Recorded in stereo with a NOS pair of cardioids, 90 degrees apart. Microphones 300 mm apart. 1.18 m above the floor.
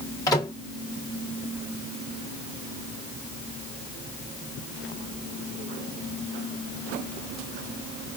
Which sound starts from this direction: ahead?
A microwave, at 0.3 s.